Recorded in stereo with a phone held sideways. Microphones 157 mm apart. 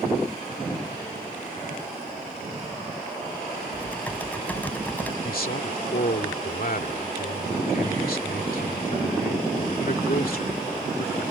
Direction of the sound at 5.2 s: 70° left (ahead or behind).